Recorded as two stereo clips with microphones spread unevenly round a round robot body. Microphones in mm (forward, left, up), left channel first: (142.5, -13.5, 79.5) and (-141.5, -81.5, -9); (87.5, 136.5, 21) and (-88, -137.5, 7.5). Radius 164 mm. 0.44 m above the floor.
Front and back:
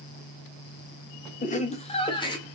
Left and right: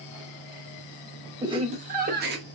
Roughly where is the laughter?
Ahead right.